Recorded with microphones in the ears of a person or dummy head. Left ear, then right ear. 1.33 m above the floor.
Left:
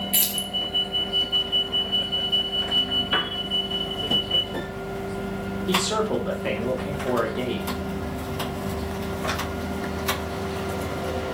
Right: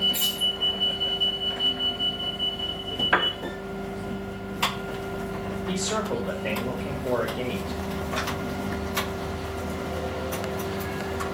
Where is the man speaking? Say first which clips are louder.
Left 5 dB; 15° left (ahead or behind), 2.5 m.